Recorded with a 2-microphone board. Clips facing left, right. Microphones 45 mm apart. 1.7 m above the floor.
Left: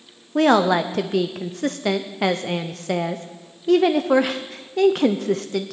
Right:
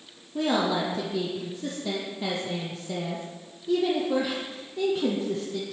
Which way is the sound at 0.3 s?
60° left (ahead or behind).